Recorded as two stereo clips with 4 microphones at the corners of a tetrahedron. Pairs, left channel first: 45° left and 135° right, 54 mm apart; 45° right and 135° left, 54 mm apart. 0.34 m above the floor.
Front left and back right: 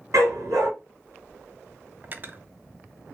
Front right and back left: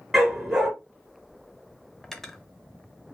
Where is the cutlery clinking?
120° right, 0.5 m.